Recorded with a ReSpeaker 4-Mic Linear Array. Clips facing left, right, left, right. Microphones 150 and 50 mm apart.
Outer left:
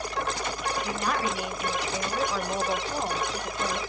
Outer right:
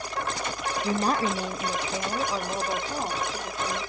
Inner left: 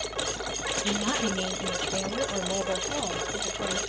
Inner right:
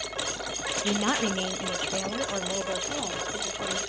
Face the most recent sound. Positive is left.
turn(degrees=-10)  # may be behind; listen again after turning